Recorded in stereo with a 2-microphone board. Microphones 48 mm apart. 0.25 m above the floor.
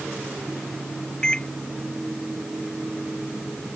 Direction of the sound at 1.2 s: 15° left (ahead or behind).